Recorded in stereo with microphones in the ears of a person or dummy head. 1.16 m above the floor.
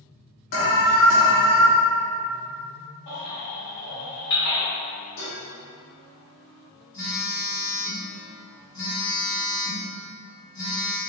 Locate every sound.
0.5 s an alarm: 50° left (ahead or behind), 0.8 m
3.1 s a baby crying: 70° left (ahead or behind), 1.5 m
5.2 s dishes clattering: 80° left, 1.4 m
6.9 s a phone buzzing: 25° left (ahead or behind), 2.0 m